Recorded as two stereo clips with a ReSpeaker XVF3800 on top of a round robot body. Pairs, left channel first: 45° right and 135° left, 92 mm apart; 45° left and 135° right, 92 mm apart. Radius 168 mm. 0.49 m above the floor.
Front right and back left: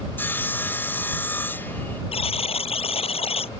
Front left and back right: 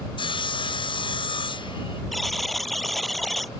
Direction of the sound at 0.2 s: 20° left.